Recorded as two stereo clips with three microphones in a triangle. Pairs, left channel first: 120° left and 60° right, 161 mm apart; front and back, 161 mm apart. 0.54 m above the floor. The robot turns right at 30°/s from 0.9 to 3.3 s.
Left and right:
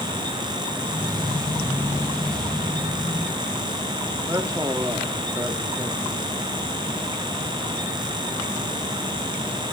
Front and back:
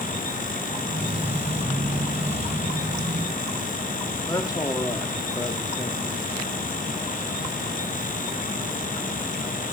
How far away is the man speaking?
About 1.4 m.